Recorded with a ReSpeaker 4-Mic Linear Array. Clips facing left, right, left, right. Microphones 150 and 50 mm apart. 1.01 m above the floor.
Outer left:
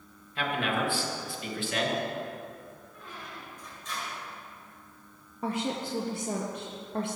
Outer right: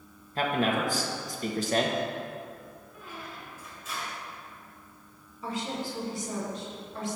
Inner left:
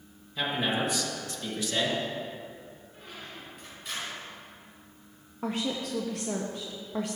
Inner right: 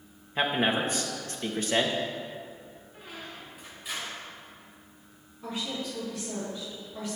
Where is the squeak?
5° right (ahead or behind), 3.5 m.